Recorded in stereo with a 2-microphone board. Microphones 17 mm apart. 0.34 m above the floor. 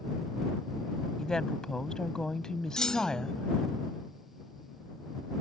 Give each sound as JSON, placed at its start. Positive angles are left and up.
{"t": 1.2, "sound": "a woman speaking", "side_deg": 45}
{"t": 2.8, "sound": "a clunk", "side_deg": 60}